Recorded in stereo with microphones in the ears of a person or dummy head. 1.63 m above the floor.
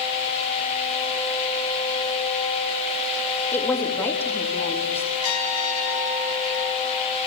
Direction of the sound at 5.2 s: 85° left.